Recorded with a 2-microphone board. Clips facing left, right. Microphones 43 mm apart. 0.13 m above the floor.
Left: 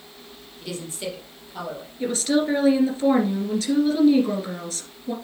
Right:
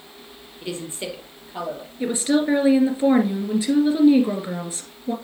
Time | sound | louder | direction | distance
0.6 | a woman speaking | right 1 dB | 25° right (ahead or behind) | 3.5 m
2.0 | a woman speaking | right 1 dB | 15° right (ahead or behind) | 2 m